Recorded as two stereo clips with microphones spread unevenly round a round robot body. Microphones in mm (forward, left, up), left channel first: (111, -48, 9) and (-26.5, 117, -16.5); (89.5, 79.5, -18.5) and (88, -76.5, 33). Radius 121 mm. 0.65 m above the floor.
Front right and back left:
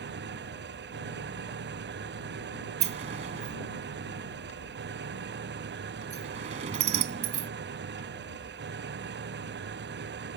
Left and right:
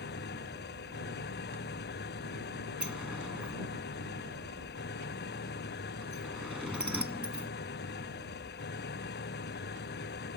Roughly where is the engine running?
Left.